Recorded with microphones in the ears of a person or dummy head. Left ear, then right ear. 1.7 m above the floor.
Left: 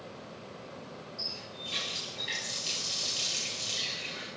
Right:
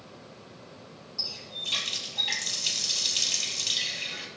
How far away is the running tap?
About 3 m.